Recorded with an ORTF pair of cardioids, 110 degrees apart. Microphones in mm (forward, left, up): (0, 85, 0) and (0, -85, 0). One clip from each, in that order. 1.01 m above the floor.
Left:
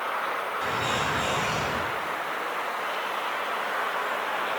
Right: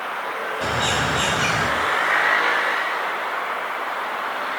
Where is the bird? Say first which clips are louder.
Right 7 dB; 65° right, 6 m.